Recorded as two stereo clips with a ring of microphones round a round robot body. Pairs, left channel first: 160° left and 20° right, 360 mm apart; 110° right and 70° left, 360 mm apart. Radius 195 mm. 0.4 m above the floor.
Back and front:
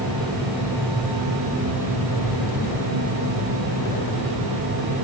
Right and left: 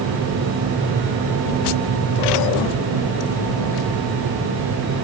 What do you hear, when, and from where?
Only background noise.